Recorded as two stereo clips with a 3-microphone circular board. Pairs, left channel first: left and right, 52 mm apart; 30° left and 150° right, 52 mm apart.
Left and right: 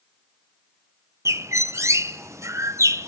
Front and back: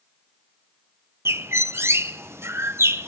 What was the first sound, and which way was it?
A bird, 115° right.